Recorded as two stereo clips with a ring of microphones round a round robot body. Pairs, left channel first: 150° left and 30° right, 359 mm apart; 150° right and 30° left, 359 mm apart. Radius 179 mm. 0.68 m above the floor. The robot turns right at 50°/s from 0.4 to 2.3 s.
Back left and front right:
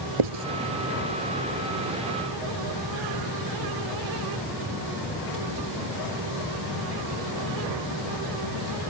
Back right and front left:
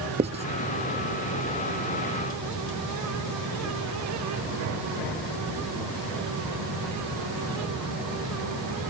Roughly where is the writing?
Ahead right.